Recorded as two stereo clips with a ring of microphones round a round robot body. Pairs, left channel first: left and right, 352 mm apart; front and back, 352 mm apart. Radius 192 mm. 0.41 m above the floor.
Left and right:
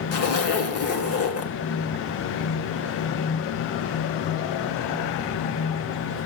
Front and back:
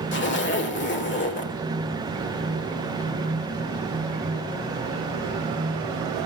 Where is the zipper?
50° left, 1.8 m.